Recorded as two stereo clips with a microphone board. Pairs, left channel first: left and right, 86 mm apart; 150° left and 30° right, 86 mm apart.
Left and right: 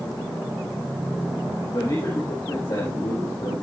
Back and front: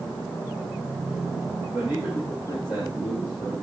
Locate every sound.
1.7 s a man speaking: 50° left, 7 m